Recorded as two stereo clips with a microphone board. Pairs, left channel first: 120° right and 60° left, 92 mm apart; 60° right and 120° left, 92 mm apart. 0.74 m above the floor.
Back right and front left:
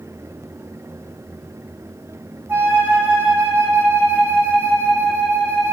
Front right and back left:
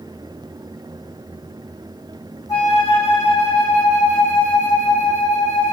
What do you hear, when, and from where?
2.5 s a flute: 10° right, 1.4 m